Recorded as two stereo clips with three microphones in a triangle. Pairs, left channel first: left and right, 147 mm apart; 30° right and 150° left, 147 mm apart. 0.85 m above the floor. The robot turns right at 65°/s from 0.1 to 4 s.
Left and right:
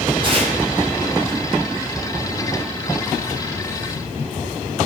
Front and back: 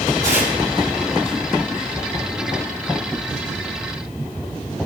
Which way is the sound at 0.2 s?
150° right.